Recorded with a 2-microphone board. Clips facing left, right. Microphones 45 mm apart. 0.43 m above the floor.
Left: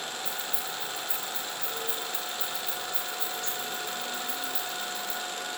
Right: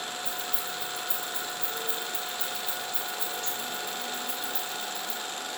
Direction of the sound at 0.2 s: 70° right (ahead or behind).